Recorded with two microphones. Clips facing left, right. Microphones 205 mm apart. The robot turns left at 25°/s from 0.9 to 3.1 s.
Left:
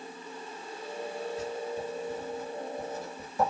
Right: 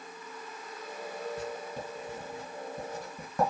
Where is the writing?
65° right (ahead or behind), 1.9 m.